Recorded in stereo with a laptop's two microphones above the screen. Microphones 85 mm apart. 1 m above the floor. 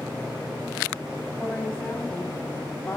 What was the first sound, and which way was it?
A woman speaking, 15° left (ahead or behind).